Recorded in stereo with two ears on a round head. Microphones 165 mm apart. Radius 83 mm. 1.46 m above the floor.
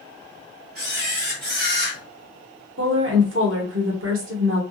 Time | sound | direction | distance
0.8 | a camera shutter | 50° right (ahead or behind) | 2.5 m
2.8 | a woman speaking | 75° right (ahead or behind) | 1.1 m